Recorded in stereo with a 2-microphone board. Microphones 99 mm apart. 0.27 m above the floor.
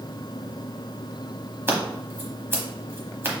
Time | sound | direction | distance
1.7 | scissors | 25° right (ahead or behind) | 1.0 m